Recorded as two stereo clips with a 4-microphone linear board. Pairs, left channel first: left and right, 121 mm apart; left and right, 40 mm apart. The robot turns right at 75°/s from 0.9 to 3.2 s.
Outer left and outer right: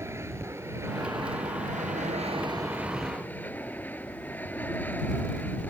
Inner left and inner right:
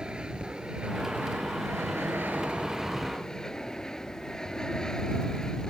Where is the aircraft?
160° right; by 5.7 s 15° left.